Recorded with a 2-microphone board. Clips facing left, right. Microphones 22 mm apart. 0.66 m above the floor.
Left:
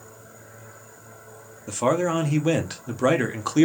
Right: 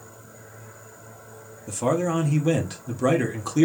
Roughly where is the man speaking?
Left.